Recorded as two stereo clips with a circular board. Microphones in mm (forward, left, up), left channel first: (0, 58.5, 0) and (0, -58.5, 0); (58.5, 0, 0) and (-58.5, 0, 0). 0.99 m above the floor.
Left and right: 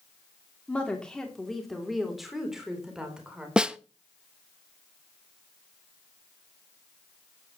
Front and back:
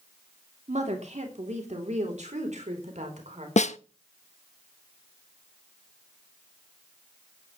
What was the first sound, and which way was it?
A woman speaking, 170° left.